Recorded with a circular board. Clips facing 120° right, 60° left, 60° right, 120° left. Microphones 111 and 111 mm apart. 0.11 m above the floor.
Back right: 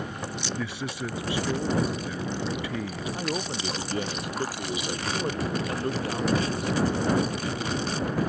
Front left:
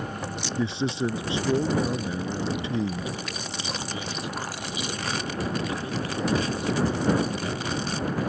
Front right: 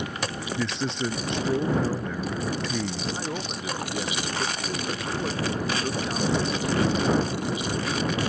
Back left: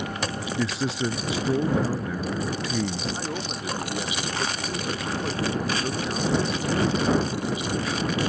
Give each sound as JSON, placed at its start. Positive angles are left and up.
{"t": 0.6, "sound": "a man speaking", "azimuth_deg": 40}
{"t": 3.1, "sound": "a man speaking", "azimuth_deg": -150}